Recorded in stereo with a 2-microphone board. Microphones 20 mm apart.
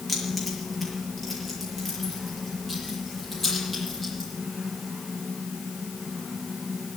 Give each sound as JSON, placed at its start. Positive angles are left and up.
{"t": 0.1, "sound": "keys jangling", "side_deg": 10, "distance_m": 5.5}